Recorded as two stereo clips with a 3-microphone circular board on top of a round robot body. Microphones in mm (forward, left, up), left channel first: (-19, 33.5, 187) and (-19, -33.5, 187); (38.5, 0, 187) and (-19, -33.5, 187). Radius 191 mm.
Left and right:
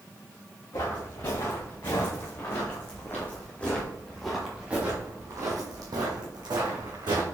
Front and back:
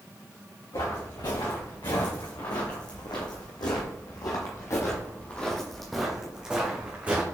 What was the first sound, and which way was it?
Footsteps, 45° left.